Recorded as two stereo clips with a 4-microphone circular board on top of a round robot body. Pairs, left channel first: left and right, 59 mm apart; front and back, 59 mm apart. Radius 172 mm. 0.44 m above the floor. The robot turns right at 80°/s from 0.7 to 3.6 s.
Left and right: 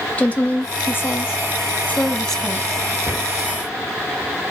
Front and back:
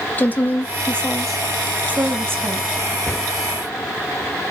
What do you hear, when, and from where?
0.2 s a woman speaking: 40° left, 1.0 m; by 3.0 s 140° right, 1.0 m
3.1 s a cupboard door: 60° right, 1.3 m; by 3.3 s 45° right, 1.3 m